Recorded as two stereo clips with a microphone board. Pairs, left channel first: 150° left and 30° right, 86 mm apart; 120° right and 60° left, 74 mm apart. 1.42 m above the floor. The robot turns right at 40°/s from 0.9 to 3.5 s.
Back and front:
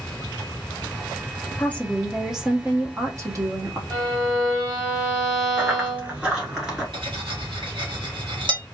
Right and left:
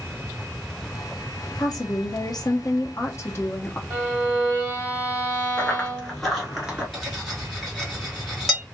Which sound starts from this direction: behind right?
A woman speaking, at 1.6 s.